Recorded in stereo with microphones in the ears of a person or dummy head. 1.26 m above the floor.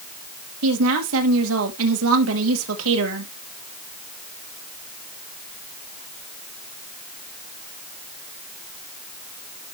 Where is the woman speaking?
80° right, 1.5 m.